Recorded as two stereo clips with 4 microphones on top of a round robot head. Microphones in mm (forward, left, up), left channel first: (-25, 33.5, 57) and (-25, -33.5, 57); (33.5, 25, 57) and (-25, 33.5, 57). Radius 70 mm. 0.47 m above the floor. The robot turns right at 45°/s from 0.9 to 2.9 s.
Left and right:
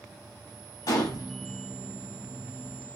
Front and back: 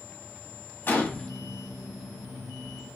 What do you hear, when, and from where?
0.9 s a gunshot: 50° left, 1.1 m; by 1.3 s 65° left, 1.1 m